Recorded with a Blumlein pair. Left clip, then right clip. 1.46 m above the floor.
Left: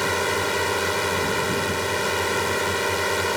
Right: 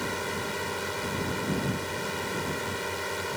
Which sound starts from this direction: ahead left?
A drone, at 0.0 s.